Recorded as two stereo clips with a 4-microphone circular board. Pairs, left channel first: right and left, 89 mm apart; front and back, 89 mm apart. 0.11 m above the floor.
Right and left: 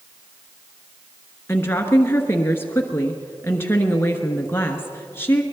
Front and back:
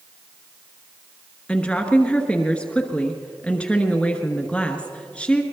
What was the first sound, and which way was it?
A woman speaking, 65° right.